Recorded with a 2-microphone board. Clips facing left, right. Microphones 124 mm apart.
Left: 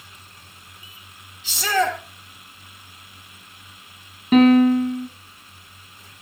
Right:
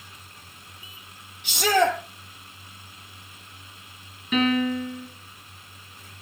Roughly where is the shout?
Right.